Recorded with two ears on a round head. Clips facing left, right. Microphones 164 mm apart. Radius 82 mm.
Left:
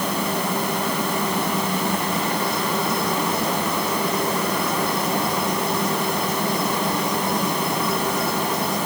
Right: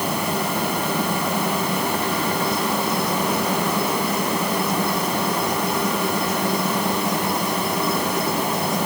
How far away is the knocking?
No knocking in this recording.